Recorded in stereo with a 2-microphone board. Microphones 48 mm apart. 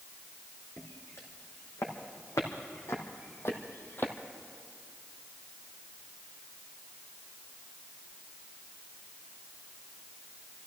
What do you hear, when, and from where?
0.8 s footsteps: 75° left (ahead or behind), 4 m; by 4.1 s 40° left (ahead or behind), 1.4 m